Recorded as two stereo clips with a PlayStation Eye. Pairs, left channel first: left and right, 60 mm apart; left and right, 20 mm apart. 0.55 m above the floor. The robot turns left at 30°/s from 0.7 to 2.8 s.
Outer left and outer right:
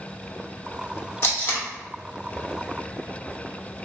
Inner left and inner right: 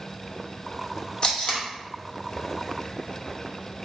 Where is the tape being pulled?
45° left (ahead or behind), 0.9 m; by 1.6 s 35° left (ahead or behind), 0.9 m.